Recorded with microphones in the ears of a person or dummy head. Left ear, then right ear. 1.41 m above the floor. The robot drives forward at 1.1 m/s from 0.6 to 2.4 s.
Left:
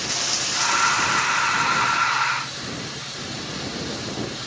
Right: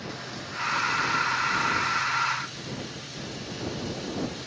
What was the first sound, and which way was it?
Running water, 70° left (ahead or behind).